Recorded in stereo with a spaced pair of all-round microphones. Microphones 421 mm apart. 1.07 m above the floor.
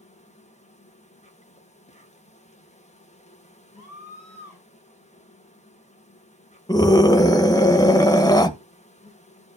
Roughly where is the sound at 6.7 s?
Centre.